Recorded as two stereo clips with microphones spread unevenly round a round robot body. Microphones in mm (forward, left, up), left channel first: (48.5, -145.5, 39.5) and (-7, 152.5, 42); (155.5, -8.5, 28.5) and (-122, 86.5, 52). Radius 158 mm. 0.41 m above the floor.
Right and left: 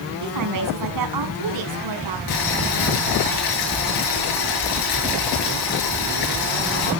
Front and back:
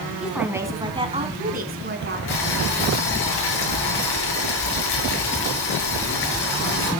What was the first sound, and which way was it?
A woman speaking, 70° left.